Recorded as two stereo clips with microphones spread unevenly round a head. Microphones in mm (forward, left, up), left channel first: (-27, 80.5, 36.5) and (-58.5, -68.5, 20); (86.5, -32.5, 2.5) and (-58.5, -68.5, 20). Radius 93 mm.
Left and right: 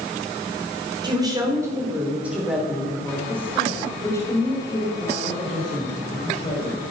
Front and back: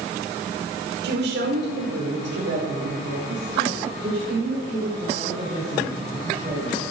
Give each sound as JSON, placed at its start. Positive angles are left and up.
{"t": 1.0, "sound": "a woman speaking", "azimuth_deg": -165, "distance_m": 5.0}